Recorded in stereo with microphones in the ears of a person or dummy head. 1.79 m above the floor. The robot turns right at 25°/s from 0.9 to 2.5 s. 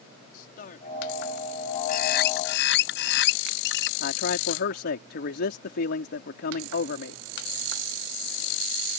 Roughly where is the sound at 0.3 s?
Left.